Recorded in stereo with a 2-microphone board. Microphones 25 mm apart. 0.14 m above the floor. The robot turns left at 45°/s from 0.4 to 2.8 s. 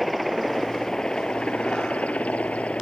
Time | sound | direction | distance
0.0 | a helicopter | 170° left | ?